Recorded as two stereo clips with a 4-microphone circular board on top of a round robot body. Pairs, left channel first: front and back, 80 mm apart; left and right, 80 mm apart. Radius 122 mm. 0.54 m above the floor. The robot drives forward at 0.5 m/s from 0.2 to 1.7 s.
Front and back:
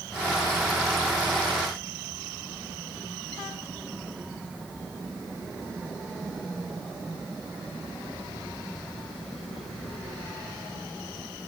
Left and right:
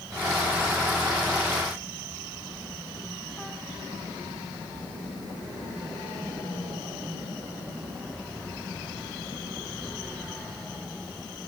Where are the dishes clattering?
No dishes clattering in this recording.